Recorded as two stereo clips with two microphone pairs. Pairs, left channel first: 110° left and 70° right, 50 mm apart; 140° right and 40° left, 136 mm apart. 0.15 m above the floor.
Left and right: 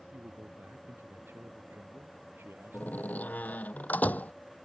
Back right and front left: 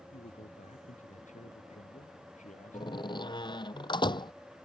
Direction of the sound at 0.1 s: 110° right.